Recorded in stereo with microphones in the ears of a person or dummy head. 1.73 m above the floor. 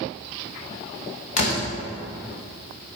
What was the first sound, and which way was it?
A door slam, 40° left (ahead or behind).